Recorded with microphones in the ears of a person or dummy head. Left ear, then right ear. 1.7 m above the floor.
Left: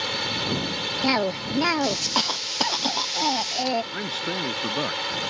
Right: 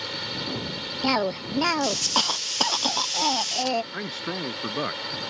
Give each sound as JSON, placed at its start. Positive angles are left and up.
{"t": 0.0, "sound": "a drone", "side_deg": 30}
{"t": 1.0, "sound": "a cough", "side_deg": -10}
{"t": 3.9, "sound": "a man speaking", "side_deg": -10}